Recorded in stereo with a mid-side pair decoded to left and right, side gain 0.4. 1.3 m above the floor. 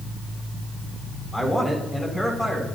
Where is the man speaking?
10° left, 7 m.